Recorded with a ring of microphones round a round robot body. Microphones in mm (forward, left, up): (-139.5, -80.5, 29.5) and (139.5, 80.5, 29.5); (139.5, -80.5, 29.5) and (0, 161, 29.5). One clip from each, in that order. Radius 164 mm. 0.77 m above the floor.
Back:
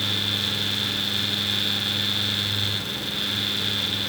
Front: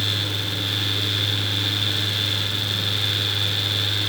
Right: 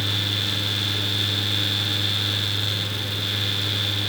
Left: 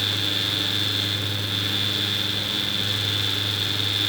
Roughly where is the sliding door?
I don't hear a sliding door.